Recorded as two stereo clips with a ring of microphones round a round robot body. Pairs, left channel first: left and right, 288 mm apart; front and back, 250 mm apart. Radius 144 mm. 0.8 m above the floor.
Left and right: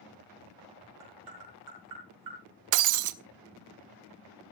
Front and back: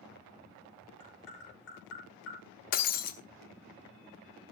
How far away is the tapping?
About 6 m.